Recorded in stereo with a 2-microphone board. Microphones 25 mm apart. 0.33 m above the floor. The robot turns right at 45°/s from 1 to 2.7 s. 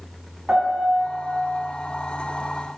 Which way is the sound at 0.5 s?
50° right (ahead or behind).